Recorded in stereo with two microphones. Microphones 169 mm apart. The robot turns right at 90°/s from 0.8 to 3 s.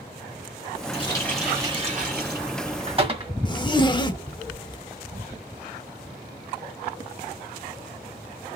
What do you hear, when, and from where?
0.9 s a running tap: 140° left, 1.7 m; by 3.3 s 35° right, 1.7 m
3.5 s a zipper: 30° left (ahead or behind), 0.7 m